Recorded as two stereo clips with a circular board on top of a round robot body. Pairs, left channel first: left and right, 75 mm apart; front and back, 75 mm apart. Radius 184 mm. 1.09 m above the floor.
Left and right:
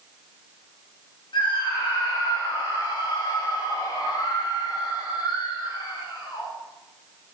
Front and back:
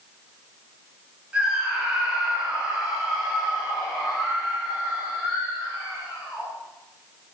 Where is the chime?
I don't hear a chime.